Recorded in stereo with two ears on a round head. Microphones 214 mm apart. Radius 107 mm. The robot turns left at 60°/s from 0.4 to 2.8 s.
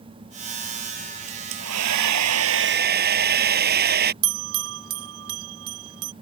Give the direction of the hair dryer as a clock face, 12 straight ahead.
2 o'clock.